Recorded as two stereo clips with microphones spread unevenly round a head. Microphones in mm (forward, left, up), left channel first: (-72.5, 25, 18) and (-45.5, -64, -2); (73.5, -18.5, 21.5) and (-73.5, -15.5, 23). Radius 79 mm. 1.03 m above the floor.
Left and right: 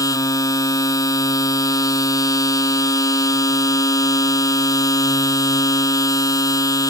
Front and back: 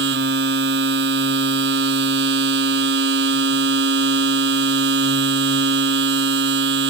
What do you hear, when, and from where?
0.0 s a machine running: 155° left